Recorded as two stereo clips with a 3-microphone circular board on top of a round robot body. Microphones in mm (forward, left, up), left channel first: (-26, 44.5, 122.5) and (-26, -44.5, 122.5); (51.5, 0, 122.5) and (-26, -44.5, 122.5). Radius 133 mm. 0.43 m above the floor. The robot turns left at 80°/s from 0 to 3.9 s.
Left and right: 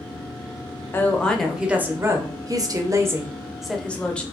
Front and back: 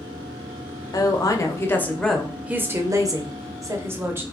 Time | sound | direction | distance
0.9 | a woman speaking | 40° left | 0.9 m